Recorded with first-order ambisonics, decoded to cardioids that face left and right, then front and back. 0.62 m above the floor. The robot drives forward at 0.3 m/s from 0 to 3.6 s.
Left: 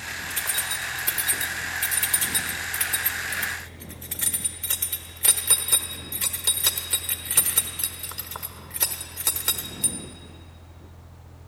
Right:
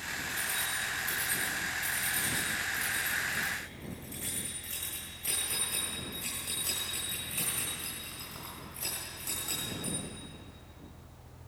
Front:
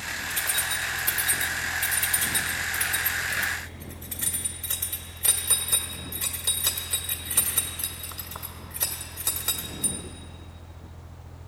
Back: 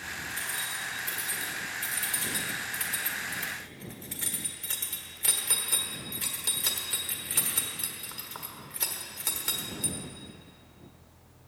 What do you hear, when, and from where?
0.3 s keys jangling: 55° left, 1.7 m; by 10.0 s 95° left, 1.4 m